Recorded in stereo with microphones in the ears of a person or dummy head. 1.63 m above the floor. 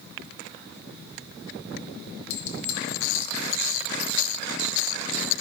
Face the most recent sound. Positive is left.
turn(degrees=40)  # may be behind; listen again after turning